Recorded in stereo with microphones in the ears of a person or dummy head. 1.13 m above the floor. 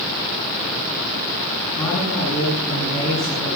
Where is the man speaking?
40° left (ahead or behind), 9.5 m.